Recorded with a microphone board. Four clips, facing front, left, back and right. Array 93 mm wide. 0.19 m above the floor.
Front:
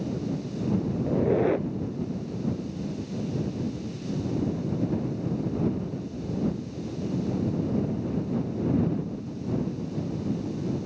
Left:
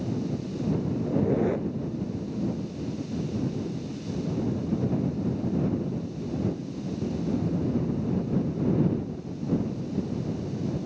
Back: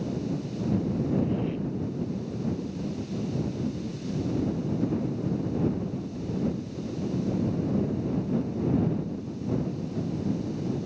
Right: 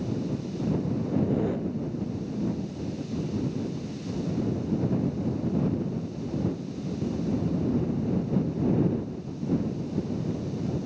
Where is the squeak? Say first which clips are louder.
Left 3 dB, front 5 dB; 15° left.